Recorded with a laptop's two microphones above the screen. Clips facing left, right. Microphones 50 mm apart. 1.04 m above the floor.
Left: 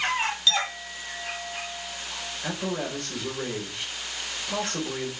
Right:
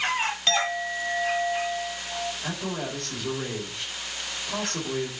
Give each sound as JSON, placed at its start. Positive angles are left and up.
{"t": 0.5, "sound": "a clink", "side_deg": -45, "distance_m": 0.9}
{"t": 2.4, "sound": "a man speaking", "side_deg": 10, "distance_m": 5.0}